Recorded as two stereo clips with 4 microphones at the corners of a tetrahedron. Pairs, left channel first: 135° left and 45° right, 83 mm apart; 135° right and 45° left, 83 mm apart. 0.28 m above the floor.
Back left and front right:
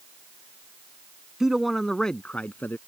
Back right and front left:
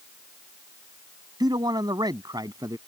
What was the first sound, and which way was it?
A man speaking, 35° left.